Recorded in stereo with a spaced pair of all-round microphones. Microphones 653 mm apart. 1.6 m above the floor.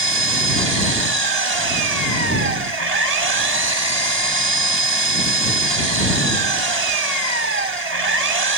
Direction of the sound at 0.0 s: 70° right (ahead or behind).